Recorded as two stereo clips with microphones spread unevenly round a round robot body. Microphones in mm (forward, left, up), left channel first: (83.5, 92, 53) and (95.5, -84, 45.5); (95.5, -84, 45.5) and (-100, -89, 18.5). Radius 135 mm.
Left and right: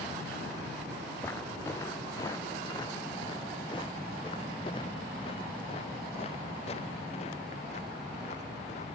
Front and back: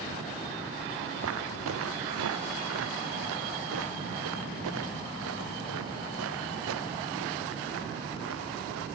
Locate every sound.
1.2 s footsteps: 175° left; by 8.9 s 160° left